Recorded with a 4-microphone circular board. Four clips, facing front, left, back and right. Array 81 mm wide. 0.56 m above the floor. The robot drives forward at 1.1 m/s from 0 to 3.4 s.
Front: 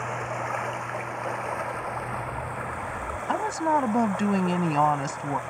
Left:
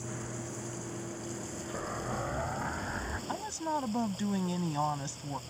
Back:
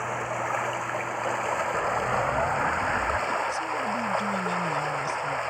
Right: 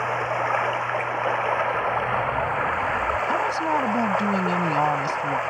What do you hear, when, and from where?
0.0 s running water: 95° right; by 5.5 s 110° right
1.7 s an explosion: 150° right; by 3.2 s 165° right
3.3 s a woman speaking: 30° right